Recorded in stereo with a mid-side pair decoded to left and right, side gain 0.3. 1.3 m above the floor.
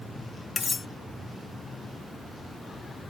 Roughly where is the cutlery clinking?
Ahead left.